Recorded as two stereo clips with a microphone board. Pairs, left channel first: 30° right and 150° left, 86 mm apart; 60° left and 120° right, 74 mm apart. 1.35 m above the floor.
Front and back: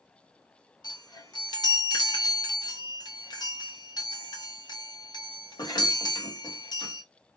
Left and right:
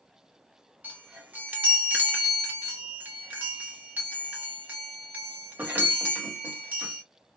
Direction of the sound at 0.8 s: 60° right.